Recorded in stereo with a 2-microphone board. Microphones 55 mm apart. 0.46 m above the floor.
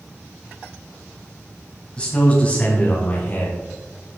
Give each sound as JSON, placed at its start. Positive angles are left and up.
{"t": 2.0, "sound": "a man speaking", "side_deg": 20, "distance_m": 2.5}